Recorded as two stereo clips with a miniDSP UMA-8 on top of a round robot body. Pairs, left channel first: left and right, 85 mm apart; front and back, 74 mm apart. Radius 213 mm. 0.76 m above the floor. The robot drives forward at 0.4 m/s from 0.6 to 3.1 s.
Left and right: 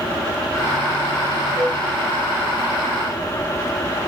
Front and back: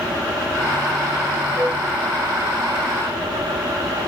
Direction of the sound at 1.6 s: 125° right.